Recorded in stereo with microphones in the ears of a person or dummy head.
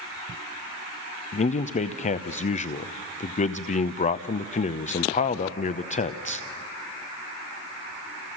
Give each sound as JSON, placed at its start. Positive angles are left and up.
{"t": 1.3, "sound": "a man speaking", "side_deg": 35, "distance_m": 0.7}